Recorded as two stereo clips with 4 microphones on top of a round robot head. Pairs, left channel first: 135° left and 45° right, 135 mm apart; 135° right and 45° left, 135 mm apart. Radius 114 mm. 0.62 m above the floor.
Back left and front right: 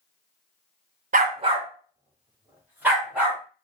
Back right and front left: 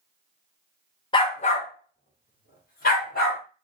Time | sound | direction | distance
1.1 | a dog barking | 75° right | 0.5 m